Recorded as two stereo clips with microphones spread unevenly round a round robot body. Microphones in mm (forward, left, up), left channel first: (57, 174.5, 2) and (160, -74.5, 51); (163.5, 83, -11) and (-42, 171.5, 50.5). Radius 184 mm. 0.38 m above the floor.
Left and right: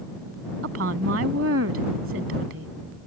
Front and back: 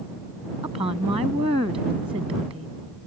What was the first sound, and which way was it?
A woman speaking, 125° right.